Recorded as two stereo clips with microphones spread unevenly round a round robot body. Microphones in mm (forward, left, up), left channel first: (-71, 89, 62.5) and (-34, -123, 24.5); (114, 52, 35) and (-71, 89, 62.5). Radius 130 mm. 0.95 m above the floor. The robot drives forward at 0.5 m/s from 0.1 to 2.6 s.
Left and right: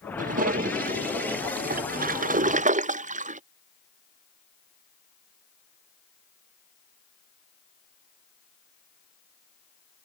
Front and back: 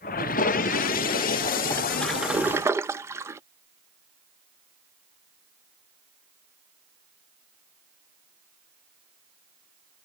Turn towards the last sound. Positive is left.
turn(degrees=-110)